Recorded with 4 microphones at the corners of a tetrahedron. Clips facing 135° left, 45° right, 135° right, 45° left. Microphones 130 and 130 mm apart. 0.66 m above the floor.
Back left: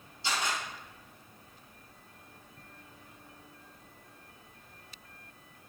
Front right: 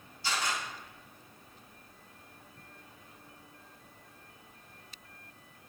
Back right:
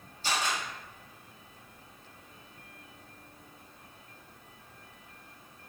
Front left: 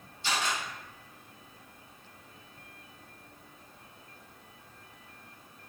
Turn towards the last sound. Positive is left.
turn(degrees=-170)